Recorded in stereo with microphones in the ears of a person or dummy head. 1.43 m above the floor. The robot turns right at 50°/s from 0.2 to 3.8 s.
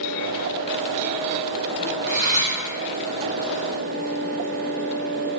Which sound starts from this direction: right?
Cutlery clinking, at 2.1 s.